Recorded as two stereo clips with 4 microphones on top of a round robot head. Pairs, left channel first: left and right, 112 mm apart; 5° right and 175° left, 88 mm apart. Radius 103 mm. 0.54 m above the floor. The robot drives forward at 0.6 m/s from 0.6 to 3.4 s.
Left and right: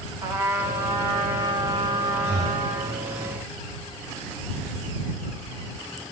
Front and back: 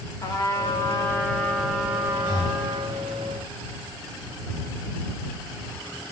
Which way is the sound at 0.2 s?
35° right.